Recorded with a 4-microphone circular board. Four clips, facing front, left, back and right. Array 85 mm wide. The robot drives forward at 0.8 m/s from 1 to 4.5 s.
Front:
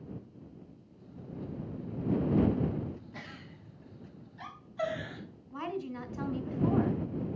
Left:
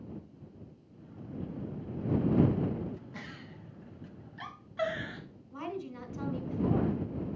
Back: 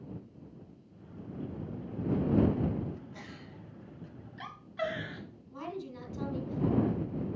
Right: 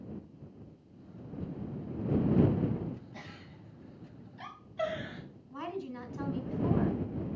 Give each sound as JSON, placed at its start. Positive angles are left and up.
{"t": 3.1, "sound": "a giggle", "azimuth_deg": 65, "distance_m": 1.4}
{"t": 5.5, "sound": "a woman speaking", "azimuth_deg": 5, "distance_m": 1.3}